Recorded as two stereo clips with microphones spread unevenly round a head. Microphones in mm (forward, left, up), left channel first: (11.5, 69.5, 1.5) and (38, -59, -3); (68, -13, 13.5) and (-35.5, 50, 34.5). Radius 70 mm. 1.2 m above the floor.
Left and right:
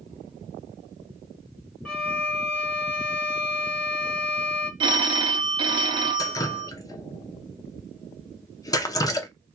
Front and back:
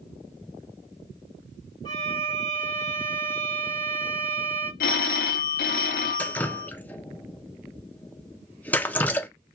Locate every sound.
1.9 s a violin: 25° left, 1.1 m
4.8 s a phone ringing: 25° right, 0.6 m
6.2 s dripping: 40° left, 0.5 m